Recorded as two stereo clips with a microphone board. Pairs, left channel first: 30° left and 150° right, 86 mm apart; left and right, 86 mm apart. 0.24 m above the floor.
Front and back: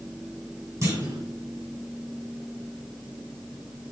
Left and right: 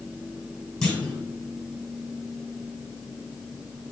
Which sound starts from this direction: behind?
A clunk, at 0.8 s.